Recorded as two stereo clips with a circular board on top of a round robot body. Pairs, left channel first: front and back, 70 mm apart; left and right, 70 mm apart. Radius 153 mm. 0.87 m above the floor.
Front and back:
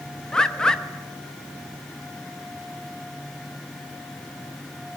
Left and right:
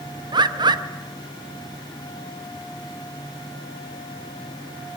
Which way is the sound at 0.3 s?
80° right.